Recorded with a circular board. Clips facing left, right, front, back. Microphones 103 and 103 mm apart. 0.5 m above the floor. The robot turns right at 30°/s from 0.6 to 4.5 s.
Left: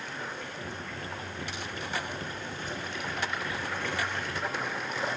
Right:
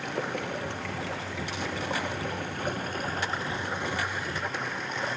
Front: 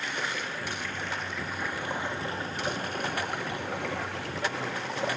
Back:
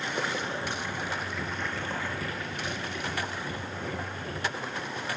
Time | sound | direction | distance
0.0 | running water | 115° right | 3.5 m